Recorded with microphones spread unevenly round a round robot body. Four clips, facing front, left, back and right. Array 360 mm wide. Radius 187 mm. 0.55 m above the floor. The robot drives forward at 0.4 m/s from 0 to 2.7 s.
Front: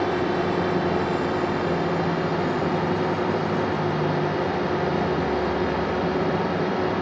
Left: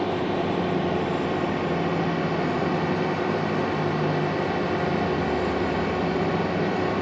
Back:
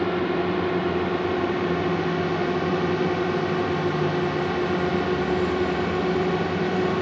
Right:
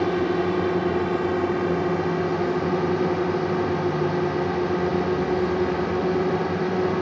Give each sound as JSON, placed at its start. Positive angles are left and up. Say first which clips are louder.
{"t": 0.0, "sound": "a drone", "louder": "right 3 dB, even", "azimuth_deg": -105}